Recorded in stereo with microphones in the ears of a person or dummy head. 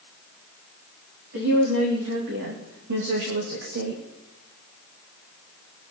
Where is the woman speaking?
85° right, 3.5 m; by 4.0 s 60° right (ahead or behind), 2.5 m.